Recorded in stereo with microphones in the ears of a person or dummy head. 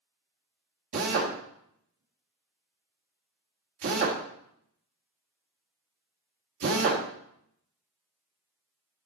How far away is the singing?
I don't hear singing.